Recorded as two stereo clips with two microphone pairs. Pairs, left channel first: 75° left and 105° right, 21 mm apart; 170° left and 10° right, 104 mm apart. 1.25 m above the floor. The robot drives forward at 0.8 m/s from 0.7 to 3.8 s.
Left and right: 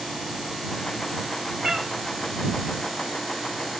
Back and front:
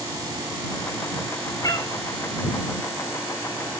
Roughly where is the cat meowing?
Behind right.